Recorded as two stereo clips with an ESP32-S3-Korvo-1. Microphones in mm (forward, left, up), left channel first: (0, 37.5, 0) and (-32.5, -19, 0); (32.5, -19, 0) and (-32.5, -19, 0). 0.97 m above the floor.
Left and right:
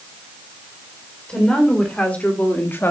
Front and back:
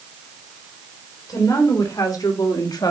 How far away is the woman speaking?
About 3 m.